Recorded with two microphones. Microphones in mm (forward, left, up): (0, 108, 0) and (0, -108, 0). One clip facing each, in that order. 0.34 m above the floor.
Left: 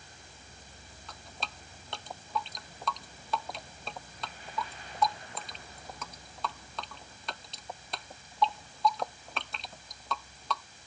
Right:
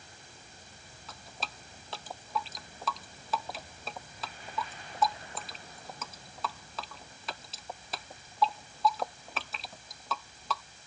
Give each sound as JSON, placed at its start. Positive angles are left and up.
{"t": 1.1, "sound": "dripping", "side_deg": -5}